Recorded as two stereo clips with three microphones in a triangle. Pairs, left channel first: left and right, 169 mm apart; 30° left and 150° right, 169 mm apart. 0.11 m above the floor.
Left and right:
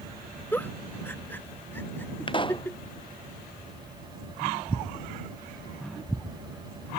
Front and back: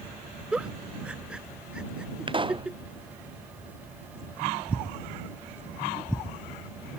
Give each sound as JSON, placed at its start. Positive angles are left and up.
{"t": 0.5, "sound": "a giggle", "azimuth_deg": 140}
{"t": 2.3, "sound": "a pop", "azimuth_deg": 150}